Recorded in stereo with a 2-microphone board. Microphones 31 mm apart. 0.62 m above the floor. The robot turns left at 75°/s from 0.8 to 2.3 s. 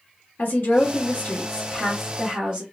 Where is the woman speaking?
80° left, 1.3 m; by 2.6 s 30° right, 1.3 m.